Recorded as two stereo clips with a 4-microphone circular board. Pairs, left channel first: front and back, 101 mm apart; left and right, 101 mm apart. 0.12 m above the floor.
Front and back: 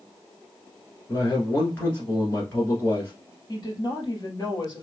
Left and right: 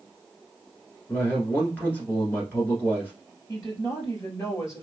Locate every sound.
1.1 s a man speaking: 40° left, 1.3 m
3.5 s a woman speaking: 40° left, 2 m